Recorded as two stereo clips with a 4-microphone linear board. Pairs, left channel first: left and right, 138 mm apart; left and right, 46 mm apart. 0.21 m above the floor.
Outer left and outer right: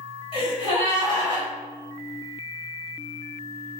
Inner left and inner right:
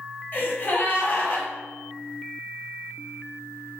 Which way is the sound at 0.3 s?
35° left (ahead or behind).